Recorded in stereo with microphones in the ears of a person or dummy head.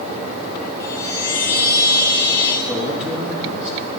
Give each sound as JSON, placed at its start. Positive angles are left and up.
{"t": 0.8, "sound": "a chime", "side_deg": 15, "distance_m": 2.0}
{"t": 2.6, "sound": "a man speaking", "side_deg": -5, "distance_m": 6.5}